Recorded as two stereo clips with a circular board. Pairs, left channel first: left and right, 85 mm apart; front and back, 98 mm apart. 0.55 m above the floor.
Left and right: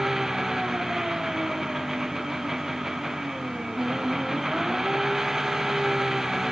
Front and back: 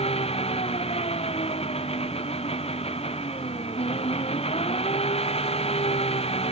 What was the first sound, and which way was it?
An engine running, 5° right.